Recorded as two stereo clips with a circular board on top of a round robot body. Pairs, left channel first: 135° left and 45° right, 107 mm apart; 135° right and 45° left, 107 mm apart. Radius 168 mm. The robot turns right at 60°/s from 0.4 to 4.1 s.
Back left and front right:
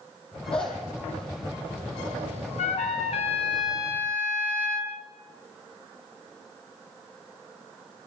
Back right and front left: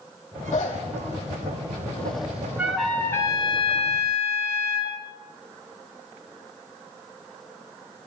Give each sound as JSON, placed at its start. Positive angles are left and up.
{"t": 0.5, "sound": "a zipper", "azimuth_deg": -145, "distance_m": 6.5}
{"t": 2.6, "sound": "a trumpet", "azimuth_deg": 125, "distance_m": 3.5}